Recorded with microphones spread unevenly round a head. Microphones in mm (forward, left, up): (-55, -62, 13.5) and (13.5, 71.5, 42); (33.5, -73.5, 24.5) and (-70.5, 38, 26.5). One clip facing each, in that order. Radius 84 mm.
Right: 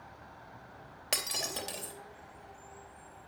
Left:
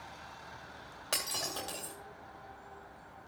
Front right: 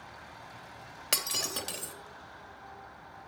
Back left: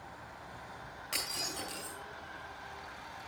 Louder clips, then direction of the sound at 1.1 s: Right 1 dB, front right 5 dB; 40° right.